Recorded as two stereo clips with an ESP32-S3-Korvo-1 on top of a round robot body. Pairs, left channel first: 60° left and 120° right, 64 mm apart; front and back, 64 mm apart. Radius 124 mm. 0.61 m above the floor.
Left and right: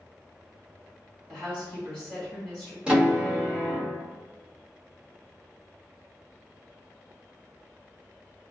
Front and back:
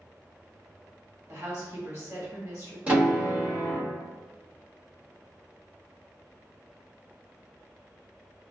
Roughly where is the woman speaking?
Behind left.